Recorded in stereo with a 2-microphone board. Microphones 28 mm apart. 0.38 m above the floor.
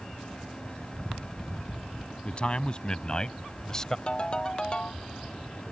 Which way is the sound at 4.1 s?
35° left (ahead or behind).